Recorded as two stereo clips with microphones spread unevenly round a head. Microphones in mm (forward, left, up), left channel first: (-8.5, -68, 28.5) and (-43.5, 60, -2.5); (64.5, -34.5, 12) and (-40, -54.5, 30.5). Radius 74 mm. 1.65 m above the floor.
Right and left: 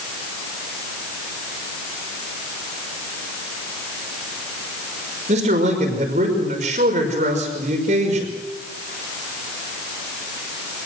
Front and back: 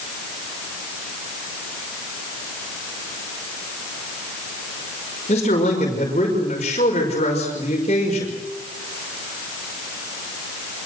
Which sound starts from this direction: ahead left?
A man speaking, at 5.3 s.